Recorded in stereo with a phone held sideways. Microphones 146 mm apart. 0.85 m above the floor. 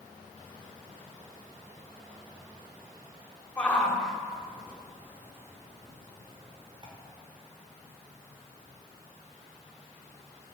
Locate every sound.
3.6 s a shout: 10° left (ahead or behind), 1.8 m; by 6.9 s 35° right (ahead or behind), 2.5 m